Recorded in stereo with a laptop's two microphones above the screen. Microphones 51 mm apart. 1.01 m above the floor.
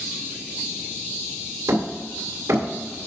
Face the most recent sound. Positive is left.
turn(degrees=-80)